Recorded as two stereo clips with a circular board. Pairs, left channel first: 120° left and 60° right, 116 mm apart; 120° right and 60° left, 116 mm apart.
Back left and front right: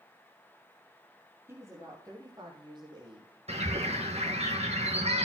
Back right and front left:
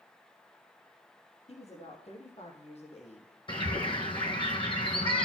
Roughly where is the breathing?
No breathing in this recording.